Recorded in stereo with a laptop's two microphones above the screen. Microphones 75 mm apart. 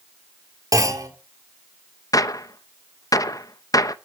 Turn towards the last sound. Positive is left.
turn(degrees=55)  # may be behind; listen again after turning